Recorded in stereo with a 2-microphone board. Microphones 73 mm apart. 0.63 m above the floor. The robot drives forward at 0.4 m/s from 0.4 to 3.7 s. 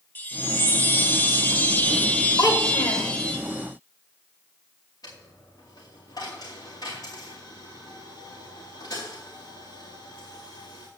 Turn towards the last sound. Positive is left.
turn(degrees=55)  # may be behind; listen again after turning